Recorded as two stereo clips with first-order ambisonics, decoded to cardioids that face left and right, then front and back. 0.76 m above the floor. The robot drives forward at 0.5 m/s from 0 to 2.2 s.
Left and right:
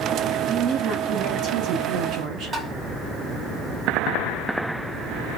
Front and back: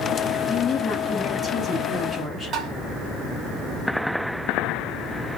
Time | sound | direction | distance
0.5 | a woman speaking | 45° right | 1.5 m
2.5 | tapping | 150° right | 1.2 m